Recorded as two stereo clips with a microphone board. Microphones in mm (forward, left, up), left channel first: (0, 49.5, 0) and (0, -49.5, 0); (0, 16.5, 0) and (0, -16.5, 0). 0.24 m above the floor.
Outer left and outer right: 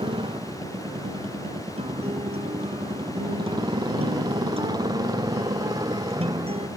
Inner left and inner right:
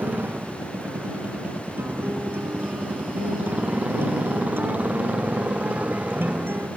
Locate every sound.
0.0 s a motorcycle: 60° right (ahead or behind); by 6.8 s 40° right (ahead or behind)
1.8 s a guitar: 85° right